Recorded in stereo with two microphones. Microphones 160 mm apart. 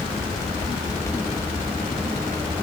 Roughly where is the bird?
No bird in this recording.